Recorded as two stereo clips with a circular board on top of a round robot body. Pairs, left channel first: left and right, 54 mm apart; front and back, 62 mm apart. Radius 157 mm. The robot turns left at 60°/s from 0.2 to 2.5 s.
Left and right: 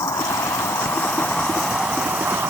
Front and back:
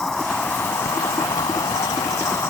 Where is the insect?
85° left; by 2.5 s 55° right.